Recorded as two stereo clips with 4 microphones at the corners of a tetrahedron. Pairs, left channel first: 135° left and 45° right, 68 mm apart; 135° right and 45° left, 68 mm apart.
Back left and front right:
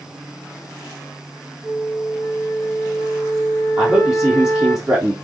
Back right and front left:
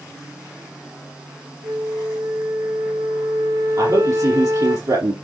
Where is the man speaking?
30° left, 3.5 m.